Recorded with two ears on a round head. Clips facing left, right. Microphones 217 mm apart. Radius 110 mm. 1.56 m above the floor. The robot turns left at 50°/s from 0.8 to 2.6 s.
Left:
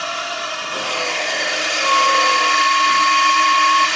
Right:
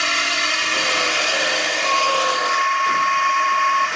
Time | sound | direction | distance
0.0 | a drone | 145° right | ?
1.8 | a flute | 110° left | ?